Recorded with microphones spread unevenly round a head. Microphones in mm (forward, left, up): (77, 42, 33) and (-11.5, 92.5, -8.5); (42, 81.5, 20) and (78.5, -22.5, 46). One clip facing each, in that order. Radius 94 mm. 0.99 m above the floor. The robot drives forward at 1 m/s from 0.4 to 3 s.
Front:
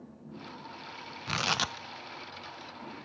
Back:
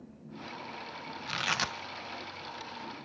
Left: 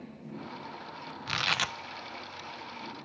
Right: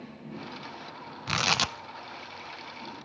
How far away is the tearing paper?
About 0.5 m.